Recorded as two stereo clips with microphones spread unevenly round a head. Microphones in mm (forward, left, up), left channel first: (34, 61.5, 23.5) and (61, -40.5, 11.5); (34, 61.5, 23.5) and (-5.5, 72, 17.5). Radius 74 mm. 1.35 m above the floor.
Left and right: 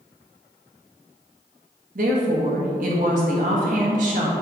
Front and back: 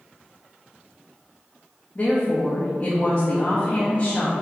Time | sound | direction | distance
1.9 | a woman speaking | 95° right | 1.3 m